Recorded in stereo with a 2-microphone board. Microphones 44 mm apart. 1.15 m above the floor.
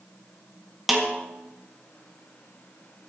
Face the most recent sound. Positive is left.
turn(degrees=-5)  # may be behind; listen again after turning